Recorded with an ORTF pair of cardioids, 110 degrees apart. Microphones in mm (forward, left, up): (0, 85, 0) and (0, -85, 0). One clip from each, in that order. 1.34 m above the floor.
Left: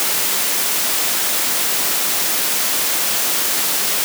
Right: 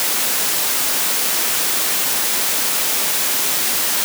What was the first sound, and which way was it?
Only background noise.